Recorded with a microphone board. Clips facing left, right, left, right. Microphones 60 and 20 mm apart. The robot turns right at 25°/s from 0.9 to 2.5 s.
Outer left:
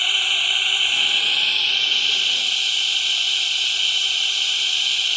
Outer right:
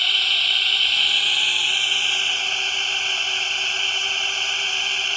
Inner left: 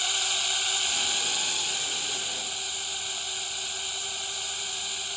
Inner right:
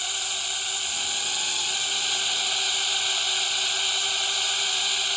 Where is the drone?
170° left; by 5.2 s 150° right.